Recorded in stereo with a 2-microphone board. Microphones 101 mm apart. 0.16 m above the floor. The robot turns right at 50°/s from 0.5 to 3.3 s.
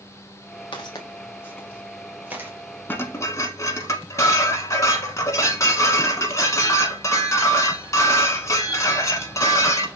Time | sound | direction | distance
0.7 | footsteps | 55° left (ahead or behind) | 1.4 m
2.9 | dishes clattering | 20° left (ahead or behind) | 1.0 m